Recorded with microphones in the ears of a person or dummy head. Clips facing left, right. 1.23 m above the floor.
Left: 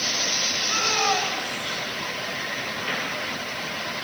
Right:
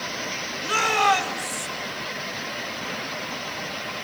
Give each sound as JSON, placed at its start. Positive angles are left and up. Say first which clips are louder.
{"t": 0.6, "sound": "a shout", "louder": "right 4 dB", "side_deg": -60, "distance_m": 7.5}